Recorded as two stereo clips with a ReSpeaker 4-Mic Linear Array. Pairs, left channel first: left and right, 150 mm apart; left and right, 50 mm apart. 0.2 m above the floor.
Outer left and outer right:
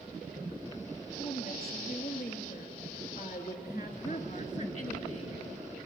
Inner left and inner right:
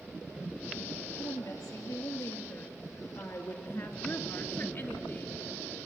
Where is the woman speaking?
70° left (ahead or behind), 3.5 m; by 5.4 s 50° left (ahead or behind), 1.8 m.